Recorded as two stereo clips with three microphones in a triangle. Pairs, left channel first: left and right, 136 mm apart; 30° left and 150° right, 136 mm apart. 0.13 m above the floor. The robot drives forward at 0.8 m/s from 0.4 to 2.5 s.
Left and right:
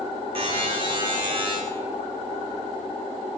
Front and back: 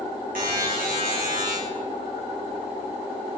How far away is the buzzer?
About 3 m.